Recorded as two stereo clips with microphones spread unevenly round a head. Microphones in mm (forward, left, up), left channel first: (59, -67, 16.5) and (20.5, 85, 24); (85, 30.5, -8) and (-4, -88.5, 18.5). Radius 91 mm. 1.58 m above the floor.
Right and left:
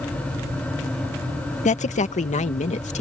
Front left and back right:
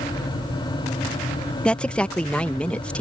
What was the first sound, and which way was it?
A woman speaking, 30° right.